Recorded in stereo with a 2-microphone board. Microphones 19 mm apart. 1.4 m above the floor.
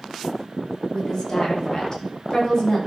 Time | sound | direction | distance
0.9 | a woman speaking | 30° left (ahead or behind) | 5.5 m